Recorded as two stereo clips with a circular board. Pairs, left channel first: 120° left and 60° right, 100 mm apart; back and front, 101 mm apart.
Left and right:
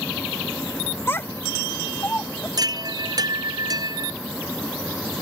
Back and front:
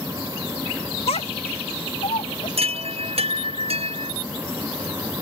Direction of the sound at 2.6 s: 10° right.